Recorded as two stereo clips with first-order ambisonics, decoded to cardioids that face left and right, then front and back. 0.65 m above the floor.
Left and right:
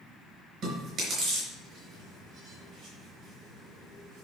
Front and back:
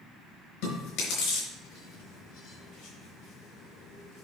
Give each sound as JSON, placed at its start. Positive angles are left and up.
{"t": 0.6, "sound": "chewing", "azimuth_deg": -25, "distance_m": 4.0}